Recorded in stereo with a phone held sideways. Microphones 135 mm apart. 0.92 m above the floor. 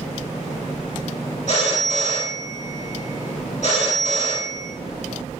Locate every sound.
1.5 s a phone ringing: 55° left (ahead or behind), 1.0 m